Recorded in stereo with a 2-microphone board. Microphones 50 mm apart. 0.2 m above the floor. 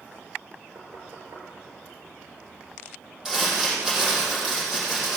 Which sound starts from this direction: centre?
Crumpling, at 3.2 s.